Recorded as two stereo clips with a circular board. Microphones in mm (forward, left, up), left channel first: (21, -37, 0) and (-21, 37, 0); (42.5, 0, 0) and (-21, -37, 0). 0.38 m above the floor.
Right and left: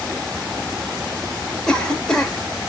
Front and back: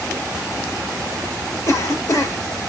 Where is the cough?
20° left, 1.1 m.